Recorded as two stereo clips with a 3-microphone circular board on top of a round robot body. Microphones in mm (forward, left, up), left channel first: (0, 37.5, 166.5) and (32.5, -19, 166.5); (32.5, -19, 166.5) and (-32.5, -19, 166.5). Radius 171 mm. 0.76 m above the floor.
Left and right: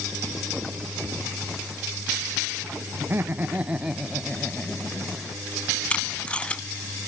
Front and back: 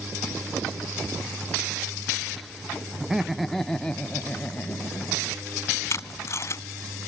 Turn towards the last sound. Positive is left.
turn(degrees=45)